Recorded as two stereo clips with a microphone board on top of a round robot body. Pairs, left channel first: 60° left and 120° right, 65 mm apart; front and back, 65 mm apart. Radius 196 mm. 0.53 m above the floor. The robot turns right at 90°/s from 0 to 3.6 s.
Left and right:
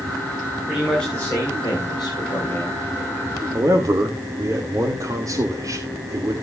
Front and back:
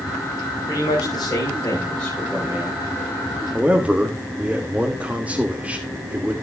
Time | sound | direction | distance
0.7 | a man speaking | 45° right | 3.5 m
3.5 | a man speaking | 120° right | 1.7 m